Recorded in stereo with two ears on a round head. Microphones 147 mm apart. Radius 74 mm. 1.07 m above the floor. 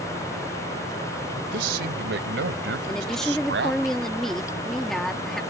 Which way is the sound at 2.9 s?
5° left (ahead or behind).